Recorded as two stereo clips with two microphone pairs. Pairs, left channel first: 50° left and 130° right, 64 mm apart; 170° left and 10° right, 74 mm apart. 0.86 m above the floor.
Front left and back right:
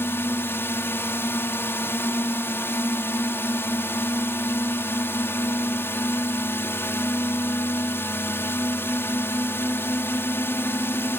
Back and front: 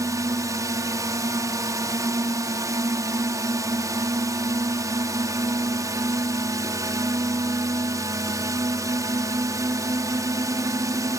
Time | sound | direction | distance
0.0 | a drone | 15° left | ?